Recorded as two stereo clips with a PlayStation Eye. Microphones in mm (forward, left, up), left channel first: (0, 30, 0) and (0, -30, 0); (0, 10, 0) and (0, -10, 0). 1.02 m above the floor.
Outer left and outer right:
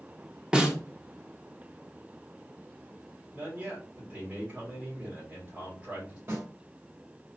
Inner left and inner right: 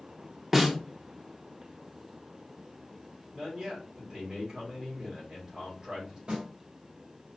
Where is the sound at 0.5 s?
10° right (ahead or behind), 0.9 m.